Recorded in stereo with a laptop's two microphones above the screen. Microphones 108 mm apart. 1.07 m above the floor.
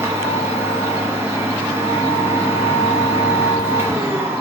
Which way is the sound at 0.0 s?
20° right (ahead or behind).